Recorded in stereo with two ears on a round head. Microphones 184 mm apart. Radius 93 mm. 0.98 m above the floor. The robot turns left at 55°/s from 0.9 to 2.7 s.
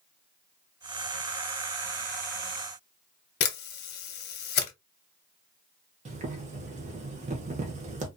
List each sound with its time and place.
3.4 s a camera shutter: 50° left (ahead or behind), 0.7 m
6.0 s boiling: 35° right (ahead or behind), 0.8 m